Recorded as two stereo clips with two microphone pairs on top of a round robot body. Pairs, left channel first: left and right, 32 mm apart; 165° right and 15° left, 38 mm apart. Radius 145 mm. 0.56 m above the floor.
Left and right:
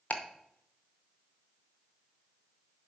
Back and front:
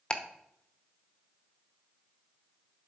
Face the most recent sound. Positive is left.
turn(degrees=130)